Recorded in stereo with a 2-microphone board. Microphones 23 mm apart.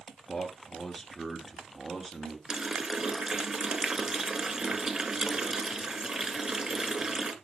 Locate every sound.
0.3 s a man speaking: 5° left (ahead or behind), 2 m; by 2.4 s 10° right (ahead or behind), 1.7 m
2.5 s a running tap: 30° right (ahead or behind), 1.0 m